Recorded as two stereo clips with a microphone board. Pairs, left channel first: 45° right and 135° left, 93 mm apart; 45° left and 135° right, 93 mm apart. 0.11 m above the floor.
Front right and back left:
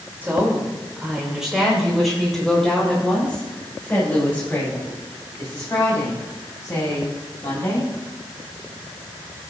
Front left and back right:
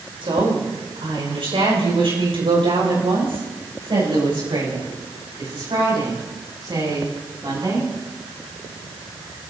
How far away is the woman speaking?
About 6 m.